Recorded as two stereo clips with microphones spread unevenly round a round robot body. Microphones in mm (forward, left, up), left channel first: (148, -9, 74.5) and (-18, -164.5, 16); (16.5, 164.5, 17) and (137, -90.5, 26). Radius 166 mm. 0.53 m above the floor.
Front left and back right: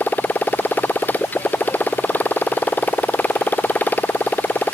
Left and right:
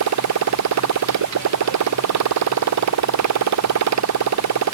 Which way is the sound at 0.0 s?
40° right.